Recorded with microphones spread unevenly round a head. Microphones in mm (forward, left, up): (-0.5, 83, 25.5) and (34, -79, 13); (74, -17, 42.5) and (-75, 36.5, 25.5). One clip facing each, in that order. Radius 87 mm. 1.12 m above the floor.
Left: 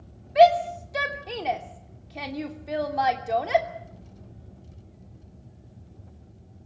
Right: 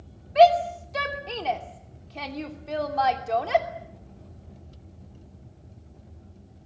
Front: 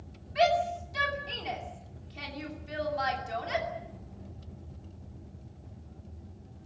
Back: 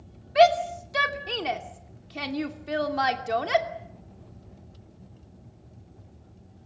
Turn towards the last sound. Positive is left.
turn(degrees=-175)